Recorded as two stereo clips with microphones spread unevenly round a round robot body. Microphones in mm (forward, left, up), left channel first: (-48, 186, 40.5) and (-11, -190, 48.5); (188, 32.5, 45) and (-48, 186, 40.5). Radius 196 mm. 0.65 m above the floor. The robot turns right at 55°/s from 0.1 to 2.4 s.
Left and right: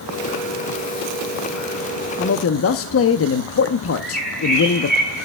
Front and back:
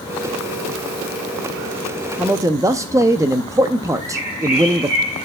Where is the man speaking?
60° left, 0.6 m; by 5.0 s 75° left, 0.6 m.